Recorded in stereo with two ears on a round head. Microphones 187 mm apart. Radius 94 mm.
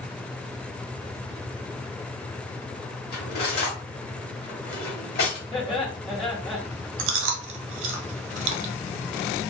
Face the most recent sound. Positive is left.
turn(degrees=-65)  # may be behind; listen again after turning